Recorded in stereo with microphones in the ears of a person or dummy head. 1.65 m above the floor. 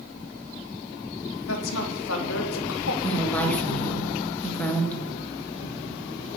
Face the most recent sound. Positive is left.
turn(degrees=0)  # may be behind; listen again after turning